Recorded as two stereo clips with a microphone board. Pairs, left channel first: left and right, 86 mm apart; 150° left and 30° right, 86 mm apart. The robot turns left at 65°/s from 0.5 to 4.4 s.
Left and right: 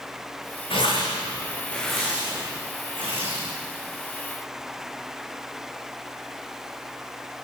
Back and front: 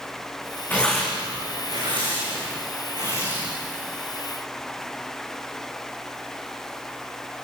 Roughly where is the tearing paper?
Left.